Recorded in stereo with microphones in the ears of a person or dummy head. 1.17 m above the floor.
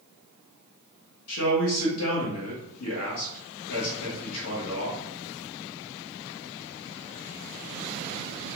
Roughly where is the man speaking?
Left.